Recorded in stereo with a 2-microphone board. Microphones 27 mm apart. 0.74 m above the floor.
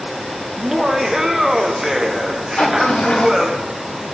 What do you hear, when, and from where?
0.6 s laughter: 25° right (ahead or behind), 0.7 m
2.6 s a sliding door: 70° left (ahead or behind), 2 m